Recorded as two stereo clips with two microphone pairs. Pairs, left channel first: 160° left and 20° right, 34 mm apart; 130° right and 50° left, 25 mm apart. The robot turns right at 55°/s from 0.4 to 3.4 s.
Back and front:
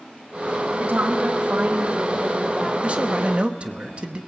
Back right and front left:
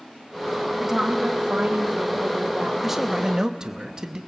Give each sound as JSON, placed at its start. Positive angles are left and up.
{"t": 0.8, "sound": "a woman speaking", "azimuth_deg": -30, "distance_m": 1.6}
{"t": 2.8, "sound": "a man speaking", "azimuth_deg": -30, "distance_m": 1.0}